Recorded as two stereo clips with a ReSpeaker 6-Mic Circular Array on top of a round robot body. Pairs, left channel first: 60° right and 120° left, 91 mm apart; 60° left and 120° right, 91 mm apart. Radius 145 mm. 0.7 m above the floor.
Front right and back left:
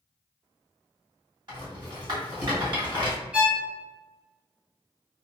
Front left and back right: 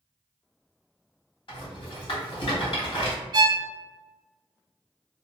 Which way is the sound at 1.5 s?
85° left.